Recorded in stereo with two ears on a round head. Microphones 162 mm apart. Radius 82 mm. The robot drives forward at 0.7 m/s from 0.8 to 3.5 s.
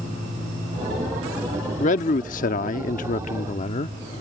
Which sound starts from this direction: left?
A man speaking, at 1.8 s.